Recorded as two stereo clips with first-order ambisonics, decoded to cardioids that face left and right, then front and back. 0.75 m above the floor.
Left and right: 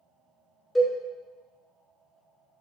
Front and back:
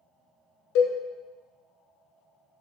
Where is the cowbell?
10° left, 0.6 m.